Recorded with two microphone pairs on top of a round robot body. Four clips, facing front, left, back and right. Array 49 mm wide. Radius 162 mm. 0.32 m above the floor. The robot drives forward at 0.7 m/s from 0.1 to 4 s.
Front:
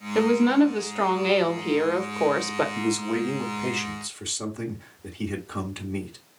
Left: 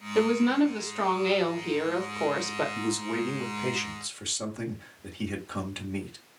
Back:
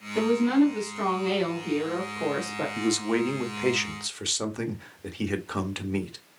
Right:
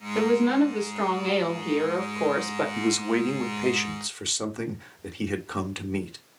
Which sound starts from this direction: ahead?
A woman speaking, at 0.1 s.